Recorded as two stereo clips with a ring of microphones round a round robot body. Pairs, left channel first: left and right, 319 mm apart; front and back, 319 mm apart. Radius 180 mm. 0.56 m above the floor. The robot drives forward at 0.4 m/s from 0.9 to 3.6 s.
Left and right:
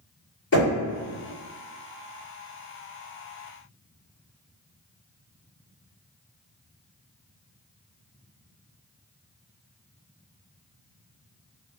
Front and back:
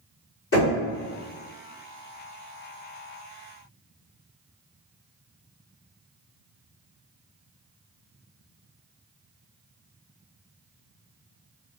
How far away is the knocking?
About 1.6 m.